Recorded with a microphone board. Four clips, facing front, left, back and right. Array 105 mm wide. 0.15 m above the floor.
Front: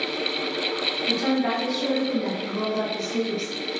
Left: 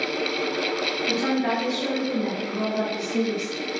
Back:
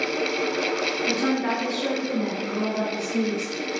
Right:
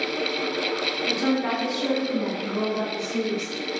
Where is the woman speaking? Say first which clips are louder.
Even, front 2 dB; 130° right, 1.6 m; by 3.5 s 30° right, 2.0 m.